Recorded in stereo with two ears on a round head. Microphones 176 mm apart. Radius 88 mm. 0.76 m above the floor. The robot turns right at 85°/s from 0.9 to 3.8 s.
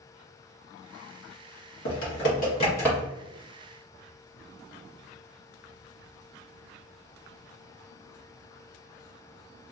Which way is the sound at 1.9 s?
65° left (ahead or behind).